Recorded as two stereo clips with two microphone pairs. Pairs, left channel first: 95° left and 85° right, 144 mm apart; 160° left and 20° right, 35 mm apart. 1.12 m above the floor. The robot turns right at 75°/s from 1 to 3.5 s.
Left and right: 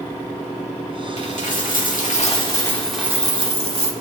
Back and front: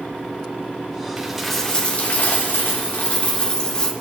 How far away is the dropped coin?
About 1.5 m.